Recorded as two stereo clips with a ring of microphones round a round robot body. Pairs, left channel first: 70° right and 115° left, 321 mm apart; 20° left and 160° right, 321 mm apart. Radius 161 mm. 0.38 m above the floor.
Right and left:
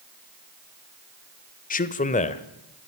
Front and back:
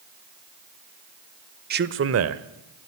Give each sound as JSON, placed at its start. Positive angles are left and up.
{"t": 1.7, "sound": "a man speaking", "azimuth_deg": -115, "distance_m": 1.1}